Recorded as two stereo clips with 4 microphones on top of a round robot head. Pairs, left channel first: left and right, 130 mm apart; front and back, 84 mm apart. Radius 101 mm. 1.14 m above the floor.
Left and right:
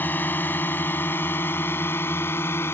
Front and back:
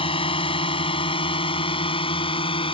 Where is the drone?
10° left; by 2.7 s 15° left.